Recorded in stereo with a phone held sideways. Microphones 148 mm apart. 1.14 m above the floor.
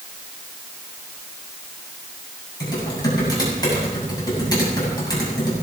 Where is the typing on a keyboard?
25° left (ahead or behind), 7.5 m.